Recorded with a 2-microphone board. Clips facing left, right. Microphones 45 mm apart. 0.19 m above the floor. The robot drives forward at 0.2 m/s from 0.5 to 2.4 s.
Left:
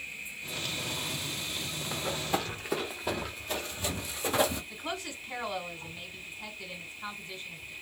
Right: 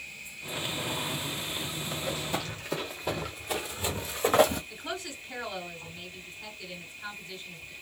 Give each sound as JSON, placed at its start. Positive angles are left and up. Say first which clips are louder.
{"t": 0.0, "sound": "an insect", "louder": "left 2 dB", "side_deg": 20, "distance_m": 0.8}
{"t": 1.9, "sound": "running footsteps", "louder": "left 2 dB", "side_deg": 35, "distance_m": 1.6}
{"t": 4.7, "sound": "a woman speaking", "louder": "even", "side_deg": 25, "distance_m": 1.2}